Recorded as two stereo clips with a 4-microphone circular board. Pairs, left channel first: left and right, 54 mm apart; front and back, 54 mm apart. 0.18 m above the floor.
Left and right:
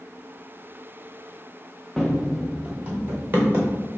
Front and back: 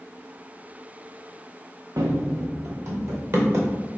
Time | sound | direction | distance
2.0 | running footsteps | straight behind | 0.7 m